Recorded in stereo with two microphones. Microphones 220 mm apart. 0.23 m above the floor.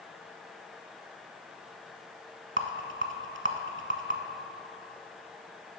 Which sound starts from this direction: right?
A rattle, at 2.6 s.